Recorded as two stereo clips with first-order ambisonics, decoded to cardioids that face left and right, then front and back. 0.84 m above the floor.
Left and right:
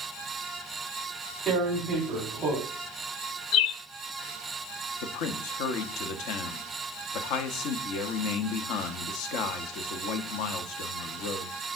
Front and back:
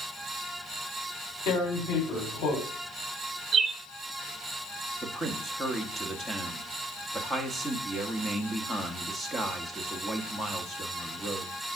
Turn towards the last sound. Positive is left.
turn(degrees=85)